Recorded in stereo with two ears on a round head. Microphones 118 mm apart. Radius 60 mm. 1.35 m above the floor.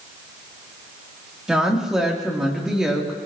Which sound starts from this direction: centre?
A woman speaking, at 1.5 s.